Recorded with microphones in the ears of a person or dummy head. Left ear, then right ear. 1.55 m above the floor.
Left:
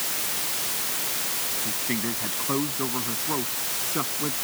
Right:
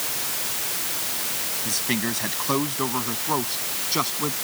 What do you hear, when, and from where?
1.6 s a man speaking: 85° right